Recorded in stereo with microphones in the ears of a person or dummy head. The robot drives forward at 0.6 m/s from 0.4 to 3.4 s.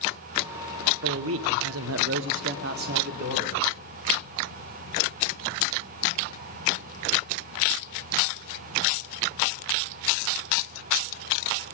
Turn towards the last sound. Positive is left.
turn(degrees=-40)  # may be behind; listen again after turning